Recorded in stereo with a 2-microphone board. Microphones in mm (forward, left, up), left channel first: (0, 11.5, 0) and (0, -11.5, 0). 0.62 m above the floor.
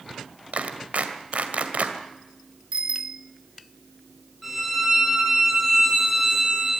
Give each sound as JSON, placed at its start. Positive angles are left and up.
{"t": 0.5, "sound": "a clap", "side_deg": -75, "distance_m": 2.0}
{"t": 2.7, "sound": "a bicycle bell", "side_deg": -50, "distance_m": 2.0}
{"t": 4.4, "sound": "a violin", "side_deg": -5, "distance_m": 9.0}